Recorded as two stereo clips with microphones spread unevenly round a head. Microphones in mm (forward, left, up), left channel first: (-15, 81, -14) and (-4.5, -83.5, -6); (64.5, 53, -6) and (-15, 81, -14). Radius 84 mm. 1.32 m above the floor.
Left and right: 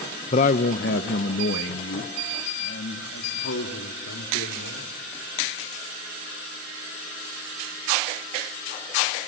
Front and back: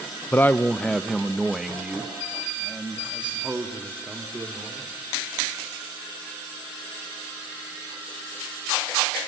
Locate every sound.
0.3 s a man speaking: 40° left, 0.6 m; by 5.1 s 85° left, 3 m